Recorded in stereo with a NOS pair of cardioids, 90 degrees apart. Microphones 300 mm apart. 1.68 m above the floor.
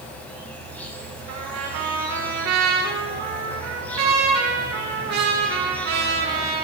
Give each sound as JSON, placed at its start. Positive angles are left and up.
{"t": 0.0, "sound": "an insect", "azimuth_deg": 5, "distance_m": 5.0}
{"t": 1.3, "sound": "a trumpet", "azimuth_deg": -65, "distance_m": 4.0}